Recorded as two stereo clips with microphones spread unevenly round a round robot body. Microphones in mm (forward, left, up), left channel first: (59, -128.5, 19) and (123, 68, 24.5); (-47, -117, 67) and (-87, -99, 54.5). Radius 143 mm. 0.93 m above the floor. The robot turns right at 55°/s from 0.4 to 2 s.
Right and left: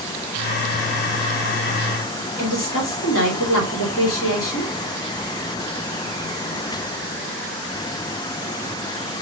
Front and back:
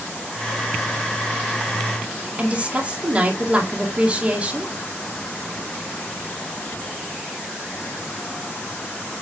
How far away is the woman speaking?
About 2 m.